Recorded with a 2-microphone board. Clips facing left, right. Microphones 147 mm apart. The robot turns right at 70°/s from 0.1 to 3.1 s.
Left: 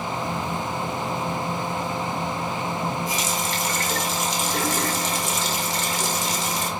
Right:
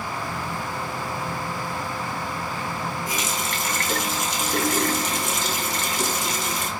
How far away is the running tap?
About 2.0 m.